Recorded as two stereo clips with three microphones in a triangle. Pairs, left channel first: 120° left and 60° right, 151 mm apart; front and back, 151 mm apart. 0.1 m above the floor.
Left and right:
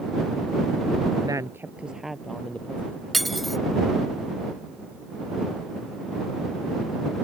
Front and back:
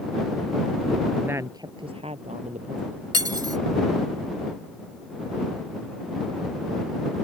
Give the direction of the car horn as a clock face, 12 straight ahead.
I don't hear a car horn.